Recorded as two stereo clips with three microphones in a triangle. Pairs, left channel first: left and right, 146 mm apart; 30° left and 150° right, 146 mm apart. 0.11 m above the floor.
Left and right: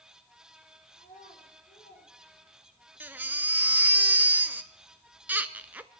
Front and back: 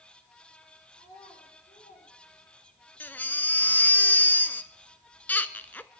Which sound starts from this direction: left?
A child speaking, at 0.9 s.